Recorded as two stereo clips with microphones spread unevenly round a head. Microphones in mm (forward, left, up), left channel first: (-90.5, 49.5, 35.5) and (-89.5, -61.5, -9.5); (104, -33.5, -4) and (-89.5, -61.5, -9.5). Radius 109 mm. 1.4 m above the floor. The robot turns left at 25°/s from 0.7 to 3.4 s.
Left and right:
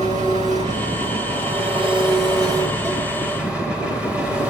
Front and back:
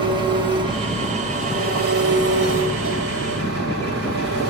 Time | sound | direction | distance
0.0 | an engine running | 105° right | 4.5 m